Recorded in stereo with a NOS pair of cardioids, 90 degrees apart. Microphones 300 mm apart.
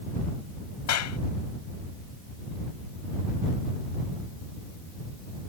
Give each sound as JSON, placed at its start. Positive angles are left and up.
{"t": 0.9, "sound": "a clap", "azimuth_deg": 65}